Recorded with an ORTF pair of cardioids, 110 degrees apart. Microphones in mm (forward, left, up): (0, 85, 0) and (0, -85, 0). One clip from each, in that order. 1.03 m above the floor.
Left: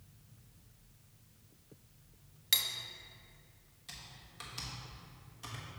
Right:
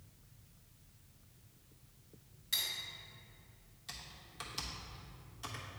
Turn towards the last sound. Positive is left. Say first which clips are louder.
# right 1 dB
turn(degrees=-10)